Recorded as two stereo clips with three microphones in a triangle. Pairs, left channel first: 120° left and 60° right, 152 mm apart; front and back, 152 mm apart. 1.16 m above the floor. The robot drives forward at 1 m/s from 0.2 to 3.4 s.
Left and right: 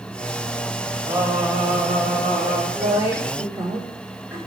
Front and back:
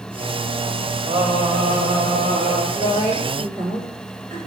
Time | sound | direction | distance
1.1 | singing | 125° right | 1.3 m
2.7 | a woman speaking | 130° right | 2.5 m